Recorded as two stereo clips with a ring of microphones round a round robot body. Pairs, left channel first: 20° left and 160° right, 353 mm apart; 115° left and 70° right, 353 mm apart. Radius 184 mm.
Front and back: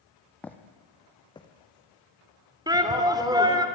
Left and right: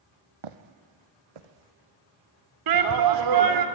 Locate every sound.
0.4 s footsteps: 65° right, 1.9 m; by 2.9 s 50° right, 3.5 m
2.7 s a shout: 80° right, 2.5 m